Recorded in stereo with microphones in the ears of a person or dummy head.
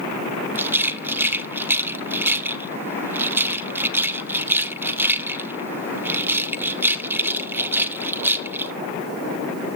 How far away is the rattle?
About 0.5 m.